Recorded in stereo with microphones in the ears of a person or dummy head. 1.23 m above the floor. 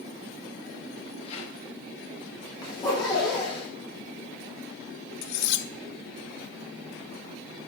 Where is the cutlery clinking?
65° left (ahead or behind), 1.0 m.